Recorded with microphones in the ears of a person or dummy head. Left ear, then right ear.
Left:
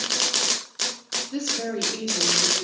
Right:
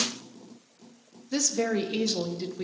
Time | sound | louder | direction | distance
1.3 | a woman speaking | right 5 dB | 60° right (ahead or behind) | 0.7 m